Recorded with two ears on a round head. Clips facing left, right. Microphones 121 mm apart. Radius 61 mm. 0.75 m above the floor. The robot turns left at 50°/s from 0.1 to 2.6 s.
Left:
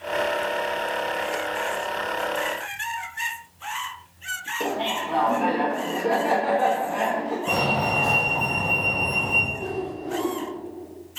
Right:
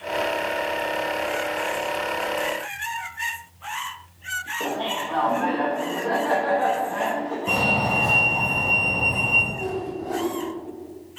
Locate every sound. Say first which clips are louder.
4.6 s laughter: left 1 dB; 10° left (ahead or behind), 1.1 m
7.5 s a fire alarm: right 1 dB; centre (ahead or behind), 2.0 m
9.5 s a whoosh: right 1 dB; 55° right (ahead or behind), 2.5 m